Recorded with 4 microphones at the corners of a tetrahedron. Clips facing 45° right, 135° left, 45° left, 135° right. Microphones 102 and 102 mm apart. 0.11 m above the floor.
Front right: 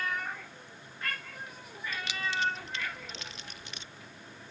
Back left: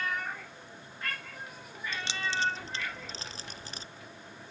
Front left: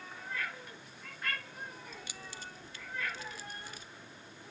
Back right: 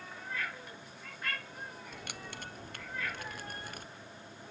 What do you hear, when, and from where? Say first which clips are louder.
1.9 s keys jangling: even, back right 3 dB; 165° right; by 3.9 s 170° right